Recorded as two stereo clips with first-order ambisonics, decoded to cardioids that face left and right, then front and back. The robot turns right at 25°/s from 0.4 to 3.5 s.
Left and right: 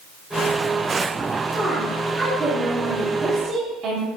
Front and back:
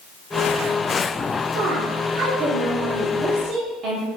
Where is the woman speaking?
175° left, 0.8 m; by 4.1 s 135° right, 0.8 m.